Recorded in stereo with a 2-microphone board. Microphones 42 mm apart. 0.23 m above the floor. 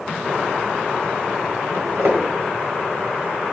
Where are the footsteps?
70° right (ahead or behind), 1.4 m.